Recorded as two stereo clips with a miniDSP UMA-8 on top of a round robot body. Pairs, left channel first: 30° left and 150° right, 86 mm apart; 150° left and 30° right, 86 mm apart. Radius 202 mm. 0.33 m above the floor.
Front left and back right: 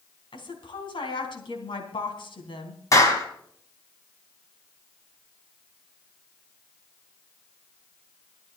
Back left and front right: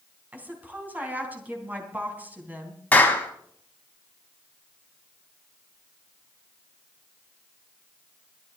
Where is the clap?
80° left, 3 m.